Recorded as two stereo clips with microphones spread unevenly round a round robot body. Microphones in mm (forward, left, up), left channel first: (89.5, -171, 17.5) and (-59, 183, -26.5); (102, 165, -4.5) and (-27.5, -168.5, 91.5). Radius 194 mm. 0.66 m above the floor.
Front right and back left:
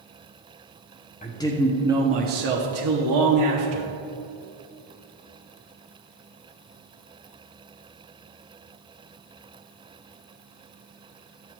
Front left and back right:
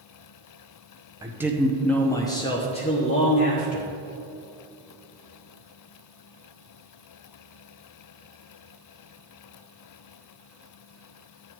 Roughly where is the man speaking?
Ahead.